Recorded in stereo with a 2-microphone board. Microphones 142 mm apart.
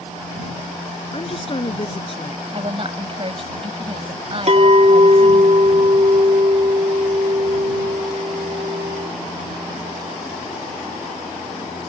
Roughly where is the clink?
Right.